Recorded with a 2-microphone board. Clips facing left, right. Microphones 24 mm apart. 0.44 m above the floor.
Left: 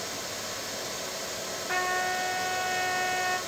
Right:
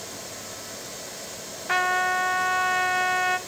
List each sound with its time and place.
1.7 s a trumpet: 35° right (ahead or behind), 0.7 m